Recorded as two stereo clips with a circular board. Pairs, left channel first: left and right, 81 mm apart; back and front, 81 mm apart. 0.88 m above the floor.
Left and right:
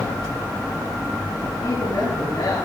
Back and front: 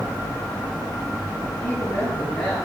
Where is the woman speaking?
100° left, 7.5 m.